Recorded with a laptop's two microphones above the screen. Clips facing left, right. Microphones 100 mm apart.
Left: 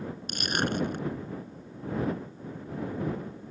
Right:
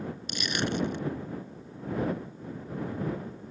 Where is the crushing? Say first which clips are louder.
Left 1 dB; 45° left (ahead or behind).